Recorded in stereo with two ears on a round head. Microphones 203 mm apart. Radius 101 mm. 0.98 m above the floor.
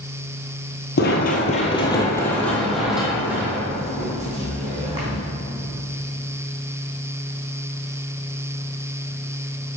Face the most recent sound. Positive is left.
turn(degrees=-20)  # may be behind; listen again after turning